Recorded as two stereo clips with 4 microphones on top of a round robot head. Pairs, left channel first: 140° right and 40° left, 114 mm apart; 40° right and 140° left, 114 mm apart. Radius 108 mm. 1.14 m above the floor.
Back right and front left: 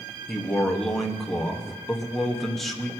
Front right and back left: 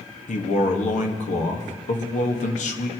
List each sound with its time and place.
0.3 s a man speaking: 50° right, 1.7 m